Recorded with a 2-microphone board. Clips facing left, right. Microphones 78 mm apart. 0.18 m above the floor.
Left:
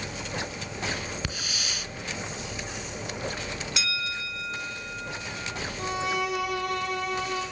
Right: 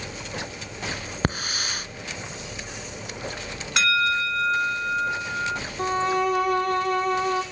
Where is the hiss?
45° right (ahead or behind), 1.0 m.